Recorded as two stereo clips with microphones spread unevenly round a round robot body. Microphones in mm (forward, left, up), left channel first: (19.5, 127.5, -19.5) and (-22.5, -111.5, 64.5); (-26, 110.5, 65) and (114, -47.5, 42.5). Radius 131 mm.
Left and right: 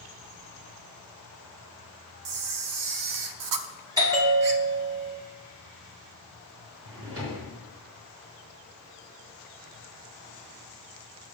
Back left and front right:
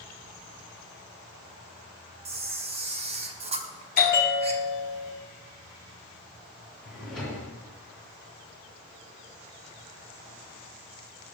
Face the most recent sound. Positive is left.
turn(degrees=-145)